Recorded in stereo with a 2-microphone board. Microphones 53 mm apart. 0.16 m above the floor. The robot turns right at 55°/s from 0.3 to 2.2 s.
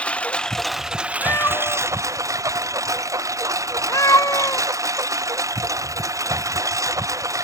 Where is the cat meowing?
45° left (ahead or behind); by 4.7 s 80° left.